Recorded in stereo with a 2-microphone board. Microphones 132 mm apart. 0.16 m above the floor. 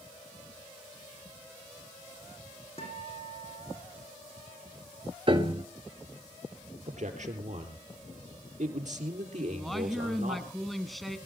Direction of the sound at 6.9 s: 60° right (ahead or behind).